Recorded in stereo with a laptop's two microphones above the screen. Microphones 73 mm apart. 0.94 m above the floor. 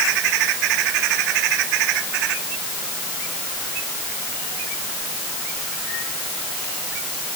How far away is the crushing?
I don't hear crushing.